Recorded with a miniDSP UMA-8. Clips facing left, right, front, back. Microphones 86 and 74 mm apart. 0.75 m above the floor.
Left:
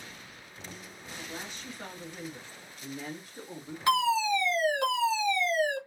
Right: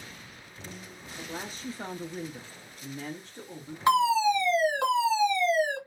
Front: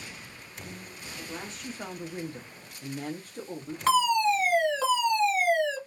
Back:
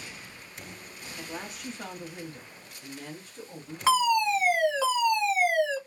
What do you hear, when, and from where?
1.2 s a woman speaking: 115° right, 0.8 m; by 3.8 s 15° left, 1.2 m
3.9 s a fire alarm: 105° right, 1.4 m